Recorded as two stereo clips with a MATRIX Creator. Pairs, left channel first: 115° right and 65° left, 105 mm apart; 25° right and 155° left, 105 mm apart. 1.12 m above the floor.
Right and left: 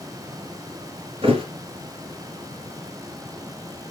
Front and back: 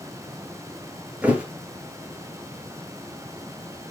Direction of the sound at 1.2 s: 85° left.